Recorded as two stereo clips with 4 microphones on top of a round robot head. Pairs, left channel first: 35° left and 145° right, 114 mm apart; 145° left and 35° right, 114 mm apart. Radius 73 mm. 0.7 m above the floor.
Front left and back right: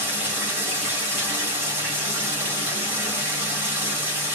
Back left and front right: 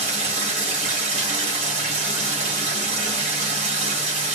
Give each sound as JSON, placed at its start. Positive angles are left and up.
{"t": 0.0, "sound": "running water", "azimuth_deg": -70, "distance_m": 2.5}